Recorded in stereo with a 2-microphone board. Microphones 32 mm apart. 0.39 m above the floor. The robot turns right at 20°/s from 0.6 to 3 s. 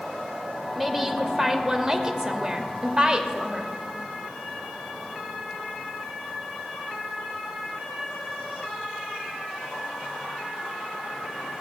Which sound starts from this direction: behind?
A woman speaking, at 0.8 s.